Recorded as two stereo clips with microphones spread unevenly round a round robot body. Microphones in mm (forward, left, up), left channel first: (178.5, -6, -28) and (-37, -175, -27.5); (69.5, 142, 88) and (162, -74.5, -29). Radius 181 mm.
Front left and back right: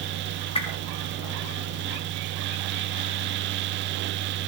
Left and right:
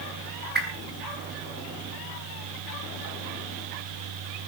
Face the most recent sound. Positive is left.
turn(degrees=-30)